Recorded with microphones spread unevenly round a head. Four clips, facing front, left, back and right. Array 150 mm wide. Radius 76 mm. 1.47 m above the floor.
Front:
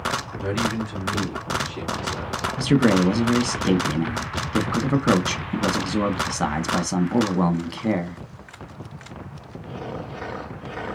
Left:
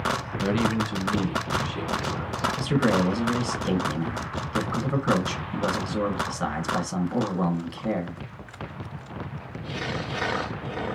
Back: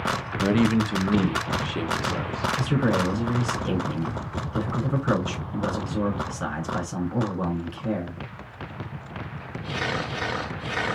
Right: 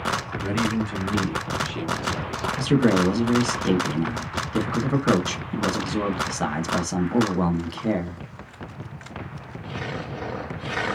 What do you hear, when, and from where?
0.4 s a man speaking: 165° left, 0.9 m; by 2.5 s 155° right, 1.6 m
2.6 s a man speaking: 30° right, 1.4 m